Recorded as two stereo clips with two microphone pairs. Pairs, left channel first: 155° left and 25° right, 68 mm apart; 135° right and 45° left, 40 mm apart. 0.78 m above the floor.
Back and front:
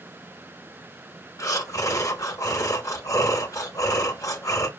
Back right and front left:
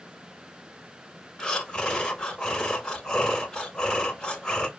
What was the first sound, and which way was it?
Breathing, 155° left.